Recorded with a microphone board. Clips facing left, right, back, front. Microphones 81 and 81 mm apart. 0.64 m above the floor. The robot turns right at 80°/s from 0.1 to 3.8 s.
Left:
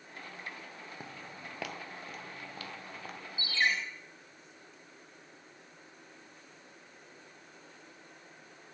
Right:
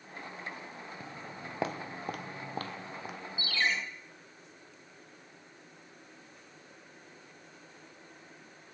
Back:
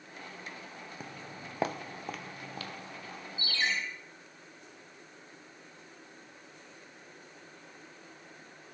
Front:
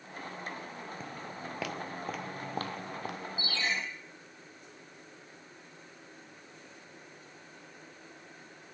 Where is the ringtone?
140° left, 3.5 m; by 3.7 s 165° left, 3.5 m.